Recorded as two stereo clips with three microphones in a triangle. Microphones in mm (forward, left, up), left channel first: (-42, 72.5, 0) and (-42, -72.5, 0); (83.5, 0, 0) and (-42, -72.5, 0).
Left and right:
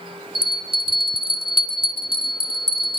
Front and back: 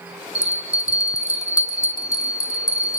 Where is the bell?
40° right, 2 m.